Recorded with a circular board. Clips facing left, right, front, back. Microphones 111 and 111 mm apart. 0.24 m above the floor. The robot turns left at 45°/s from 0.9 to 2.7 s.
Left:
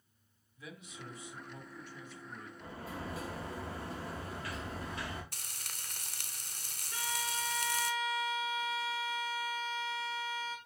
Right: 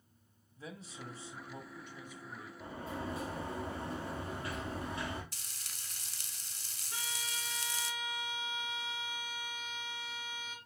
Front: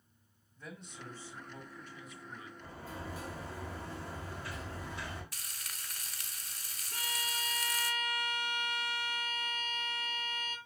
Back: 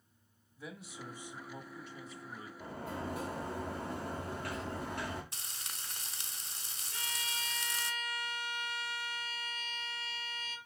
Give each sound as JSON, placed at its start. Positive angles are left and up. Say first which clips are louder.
{"t": 0.6, "sound": "a man speaking", "louder": "right 2 dB, back 2 dB", "azimuth_deg": -100, "distance_m": 1.2}
{"t": 2.6, "sound": "a sliding door", "louder": "right 3 dB, back 6 dB", "azimuth_deg": -150, "distance_m": 3.0}
{"t": 5.3, "sound": "frying", "louder": "left 4 dB, back 1 dB", "azimuth_deg": 120, "distance_m": 0.8}
{"t": 6.9, "sound": "a violin", "louder": "left 6 dB, front 3 dB", "azimuth_deg": -25, "distance_m": 2.0}